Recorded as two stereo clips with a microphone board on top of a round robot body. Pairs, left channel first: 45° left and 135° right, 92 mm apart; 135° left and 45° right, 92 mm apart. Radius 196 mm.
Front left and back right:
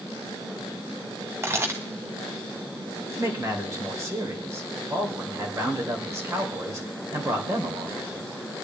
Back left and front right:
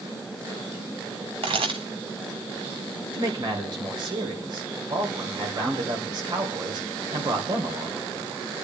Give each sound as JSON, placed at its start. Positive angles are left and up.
{"t": 1.4, "sound": "a camera shutter", "azimuth_deg": -70, "distance_m": 0.5}
{"t": 3.1, "sound": "a man speaking", "azimuth_deg": -75, "distance_m": 3.0}